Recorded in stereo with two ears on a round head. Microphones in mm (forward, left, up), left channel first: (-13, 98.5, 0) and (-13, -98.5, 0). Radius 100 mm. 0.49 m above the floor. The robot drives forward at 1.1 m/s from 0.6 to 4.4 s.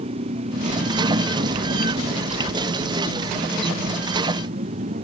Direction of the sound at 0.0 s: 30° right (ahead or behind).